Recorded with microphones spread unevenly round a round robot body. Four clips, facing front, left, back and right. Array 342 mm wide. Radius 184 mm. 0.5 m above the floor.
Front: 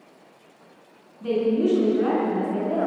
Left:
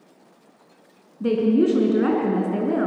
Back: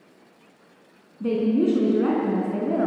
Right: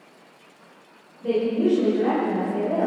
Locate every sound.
1.2 s a woman speaking: 120° left, 4.5 m